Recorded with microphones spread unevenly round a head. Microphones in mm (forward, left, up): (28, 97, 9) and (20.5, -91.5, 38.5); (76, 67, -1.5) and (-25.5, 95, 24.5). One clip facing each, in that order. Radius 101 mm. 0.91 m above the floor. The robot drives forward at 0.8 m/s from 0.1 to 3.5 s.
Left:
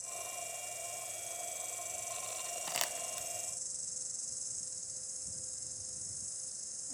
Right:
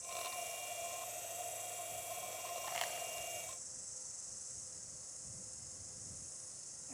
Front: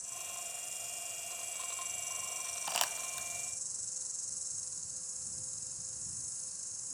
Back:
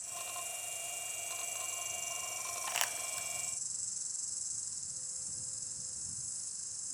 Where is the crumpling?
55° left, 1.1 m; by 3.3 s 85° left, 1.0 m.